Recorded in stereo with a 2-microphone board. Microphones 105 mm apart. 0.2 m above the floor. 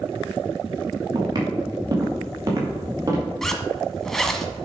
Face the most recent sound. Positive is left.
turn(degrees=5)  # may be behind; listen again after turning